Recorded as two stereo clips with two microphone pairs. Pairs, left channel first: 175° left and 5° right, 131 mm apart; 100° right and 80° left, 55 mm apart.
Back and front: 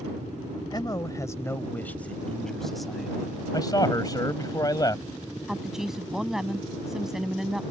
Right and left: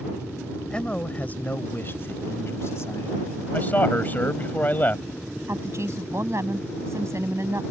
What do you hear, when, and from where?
0.7 s a man speaking: 160° right; by 3.4 s 90° right
3.5 s a man speaking: 140° right
5.5 s a woman speaking: 80° left